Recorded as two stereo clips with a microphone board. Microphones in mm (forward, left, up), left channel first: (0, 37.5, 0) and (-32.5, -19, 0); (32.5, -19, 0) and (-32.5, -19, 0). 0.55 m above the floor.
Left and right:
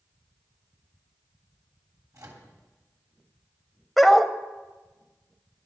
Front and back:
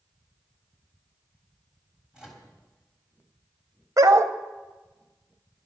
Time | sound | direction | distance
2.1 | a microwave | 100° right | 3 m
4.0 | a dog barking | 150° left | 0.8 m